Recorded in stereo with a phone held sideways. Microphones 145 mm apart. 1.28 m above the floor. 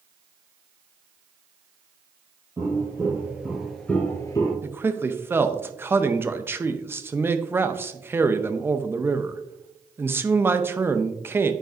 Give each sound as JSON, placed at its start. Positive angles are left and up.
{"t": 2.6, "sound": "footsteps", "side_deg": -20, "distance_m": 2.5}
{"t": 4.6, "sound": "a man speaking", "side_deg": -15, "distance_m": 0.6}